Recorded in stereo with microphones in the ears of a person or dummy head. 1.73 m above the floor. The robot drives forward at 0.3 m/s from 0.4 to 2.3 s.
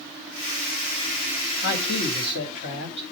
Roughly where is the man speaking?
Left.